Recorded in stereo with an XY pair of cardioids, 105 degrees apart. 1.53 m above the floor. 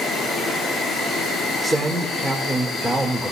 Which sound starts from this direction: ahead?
A man speaking, at 1.6 s.